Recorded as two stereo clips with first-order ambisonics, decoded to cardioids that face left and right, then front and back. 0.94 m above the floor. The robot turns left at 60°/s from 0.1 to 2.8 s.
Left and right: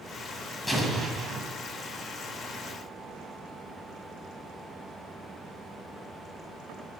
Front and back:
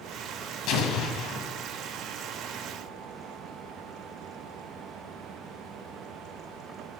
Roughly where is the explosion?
Ahead.